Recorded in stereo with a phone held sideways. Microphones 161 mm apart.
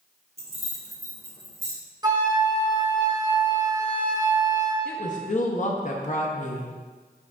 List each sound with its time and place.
0.4 s keys jangling: 40° right (ahead or behind), 1.2 m
2.0 s a flute: 25° right (ahead or behind), 0.7 m
4.8 s a woman speaking: 50° left (ahead or behind), 0.7 m